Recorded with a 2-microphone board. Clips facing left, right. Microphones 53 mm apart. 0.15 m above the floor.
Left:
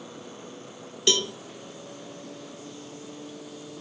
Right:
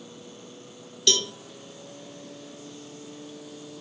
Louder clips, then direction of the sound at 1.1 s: Left 1 dB; 20° left (ahead or behind).